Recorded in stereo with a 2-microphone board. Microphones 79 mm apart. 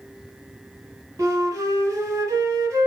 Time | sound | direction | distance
1.2 | a flute | 40° right (ahead or behind) | 1.9 m